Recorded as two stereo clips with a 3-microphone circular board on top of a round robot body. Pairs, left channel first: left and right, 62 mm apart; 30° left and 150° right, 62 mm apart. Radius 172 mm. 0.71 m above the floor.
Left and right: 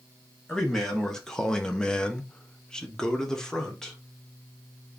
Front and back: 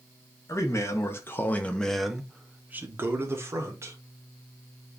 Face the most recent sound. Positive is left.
turn(degrees=175)